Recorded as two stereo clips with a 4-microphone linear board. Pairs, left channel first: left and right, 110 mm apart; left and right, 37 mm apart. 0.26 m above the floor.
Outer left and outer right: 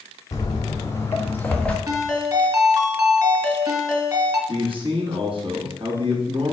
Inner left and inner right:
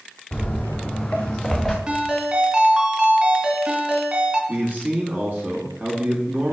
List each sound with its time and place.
0.3 s footsteps: 35° left (ahead or behind), 2 m; by 1.8 s 10° left (ahead or behind), 1.5 m
1.9 s a ringtone: 30° right (ahead or behind), 1.7 m
4.5 s a man speaking: 55° right (ahead or behind), 2.5 m